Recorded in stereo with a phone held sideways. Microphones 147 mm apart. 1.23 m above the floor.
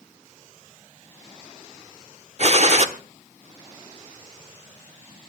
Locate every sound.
2.4 s a gunshot: 50° right (ahead or behind), 1.3 m